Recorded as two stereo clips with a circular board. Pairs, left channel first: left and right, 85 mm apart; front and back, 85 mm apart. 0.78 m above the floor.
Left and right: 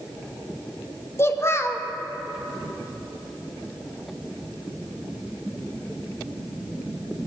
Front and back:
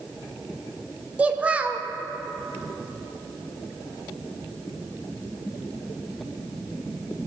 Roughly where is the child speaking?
Behind left.